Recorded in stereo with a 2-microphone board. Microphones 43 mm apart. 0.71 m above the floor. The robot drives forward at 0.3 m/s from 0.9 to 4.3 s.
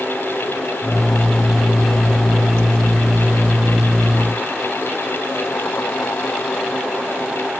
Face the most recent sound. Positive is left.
No sound to turn to.